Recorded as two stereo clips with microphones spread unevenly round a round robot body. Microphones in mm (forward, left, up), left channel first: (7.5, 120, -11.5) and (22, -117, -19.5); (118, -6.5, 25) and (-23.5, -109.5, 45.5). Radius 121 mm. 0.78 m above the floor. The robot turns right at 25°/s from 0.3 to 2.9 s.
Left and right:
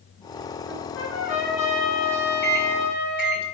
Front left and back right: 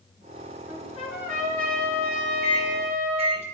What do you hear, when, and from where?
0.7 s a trumpet: 55° left, 6.5 m; by 3.4 s 110° left, 6.5 m
2.4 s a microwave: 140° left, 2.5 m; by 3.4 s 150° left, 2.5 m